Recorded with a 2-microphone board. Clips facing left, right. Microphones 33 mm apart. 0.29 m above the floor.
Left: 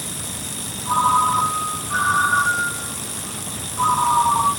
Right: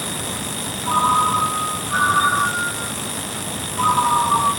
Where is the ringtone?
15° right (ahead or behind), 2.5 m.